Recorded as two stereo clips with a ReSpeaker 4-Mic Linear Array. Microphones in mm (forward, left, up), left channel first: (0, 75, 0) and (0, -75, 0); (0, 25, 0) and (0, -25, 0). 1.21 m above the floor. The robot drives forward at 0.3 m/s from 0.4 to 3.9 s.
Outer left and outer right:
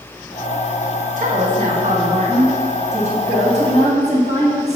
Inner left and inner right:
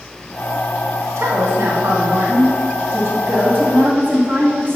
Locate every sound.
1.2 s a woman speaking: 70° right (ahead or behind), 1.4 m; by 4.8 s 50° right (ahead or behind), 1.7 m